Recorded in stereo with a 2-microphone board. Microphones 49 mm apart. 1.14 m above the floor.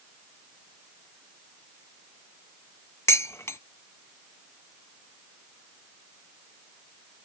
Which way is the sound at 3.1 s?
65° left (ahead or behind).